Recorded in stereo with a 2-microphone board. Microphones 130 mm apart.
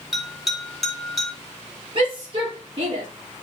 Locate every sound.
0.1 s a bell: 5° right (ahead or behind), 3.5 m
1.9 s a shout: 40° right (ahead or behind), 8.5 m